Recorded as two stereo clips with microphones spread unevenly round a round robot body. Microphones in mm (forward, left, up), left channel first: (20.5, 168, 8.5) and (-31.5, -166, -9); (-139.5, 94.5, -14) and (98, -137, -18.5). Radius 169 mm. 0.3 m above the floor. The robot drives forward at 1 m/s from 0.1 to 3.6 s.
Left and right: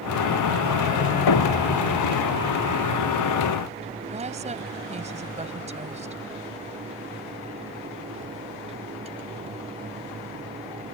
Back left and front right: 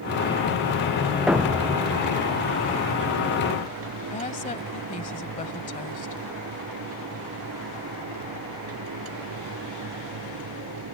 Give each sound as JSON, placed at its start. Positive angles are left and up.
{"t": 1.3, "sound": "a thud", "azimuth_deg": 45}
{"t": 4.0, "sound": "a woman speaking", "azimuth_deg": -160}